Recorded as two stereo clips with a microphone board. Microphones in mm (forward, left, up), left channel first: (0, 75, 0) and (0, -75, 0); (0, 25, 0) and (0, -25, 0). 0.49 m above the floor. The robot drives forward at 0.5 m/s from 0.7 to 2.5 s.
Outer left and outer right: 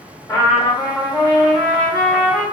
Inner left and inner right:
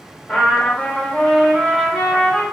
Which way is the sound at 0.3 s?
20° left (ahead or behind).